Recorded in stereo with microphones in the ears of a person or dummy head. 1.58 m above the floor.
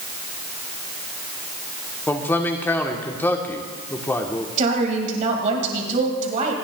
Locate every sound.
2.1 s a man speaking: 10° left (ahead or behind), 1.0 m
4.6 s a woman speaking: 45° right (ahead or behind), 1.9 m